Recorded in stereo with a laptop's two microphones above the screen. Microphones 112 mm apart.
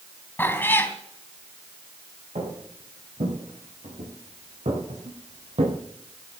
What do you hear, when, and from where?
0.4 s a cat meowing: 15° left (ahead or behind), 3 m
2.4 s footsteps: 80° right, 6 m; by 5.8 s 65° right (ahead or behind), 2.5 m